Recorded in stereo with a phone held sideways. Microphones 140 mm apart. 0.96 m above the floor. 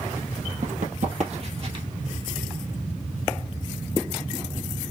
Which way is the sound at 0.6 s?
65° right (ahead or behind).